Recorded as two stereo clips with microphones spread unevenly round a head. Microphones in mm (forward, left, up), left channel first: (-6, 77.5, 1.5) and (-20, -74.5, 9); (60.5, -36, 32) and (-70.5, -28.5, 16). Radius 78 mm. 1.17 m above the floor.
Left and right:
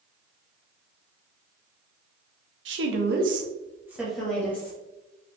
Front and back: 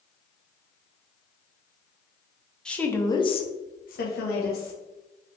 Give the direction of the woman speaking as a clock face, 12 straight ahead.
3 o'clock.